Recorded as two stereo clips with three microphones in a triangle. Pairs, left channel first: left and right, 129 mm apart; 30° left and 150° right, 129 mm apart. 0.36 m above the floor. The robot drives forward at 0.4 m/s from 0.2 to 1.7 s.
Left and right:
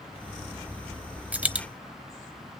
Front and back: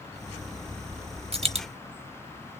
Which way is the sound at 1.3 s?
165° right.